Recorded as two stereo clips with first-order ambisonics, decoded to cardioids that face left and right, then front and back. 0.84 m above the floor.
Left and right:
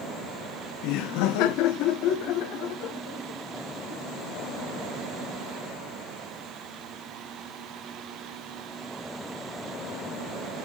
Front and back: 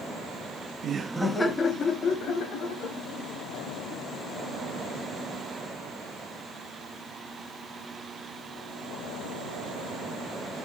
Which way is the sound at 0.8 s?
125° left.